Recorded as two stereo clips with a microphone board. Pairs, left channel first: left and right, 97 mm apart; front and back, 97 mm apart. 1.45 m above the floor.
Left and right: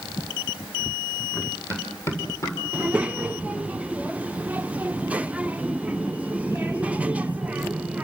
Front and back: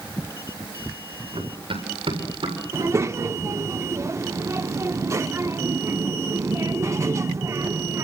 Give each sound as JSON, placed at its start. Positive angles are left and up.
{"t": 1.3, "sound": "running footsteps", "azimuth_deg": 155, "distance_m": 8.0}
{"t": 2.7, "sound": "a child speaking", "azimuth_deg": -155, "distance_m": 0.5}